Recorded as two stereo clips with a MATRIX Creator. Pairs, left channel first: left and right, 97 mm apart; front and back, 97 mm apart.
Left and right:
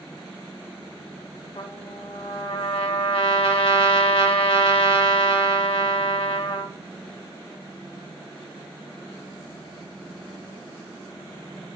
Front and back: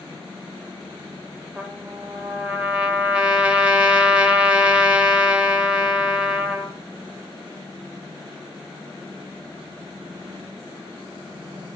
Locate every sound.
1.6 s a trumpet: 105° left, 0.6 m